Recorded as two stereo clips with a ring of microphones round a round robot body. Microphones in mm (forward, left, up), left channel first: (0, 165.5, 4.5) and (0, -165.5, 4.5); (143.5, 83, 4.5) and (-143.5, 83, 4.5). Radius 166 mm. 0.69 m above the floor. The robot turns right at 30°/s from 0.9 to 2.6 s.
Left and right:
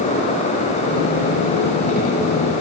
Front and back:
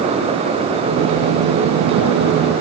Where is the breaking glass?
I don't hear breaking glass.